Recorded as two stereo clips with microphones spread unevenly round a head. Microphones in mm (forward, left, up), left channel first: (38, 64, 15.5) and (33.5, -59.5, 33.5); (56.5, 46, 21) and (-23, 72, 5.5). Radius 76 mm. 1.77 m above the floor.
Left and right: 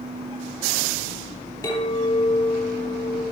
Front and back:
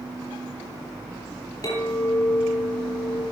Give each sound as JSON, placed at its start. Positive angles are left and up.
{"t": 1.6, "sound": "a clink", "azimuth_deg": 30, "distance_m": 5.0}